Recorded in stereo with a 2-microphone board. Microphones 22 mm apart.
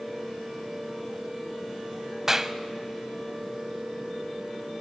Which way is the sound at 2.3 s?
15° right (ahead or behind).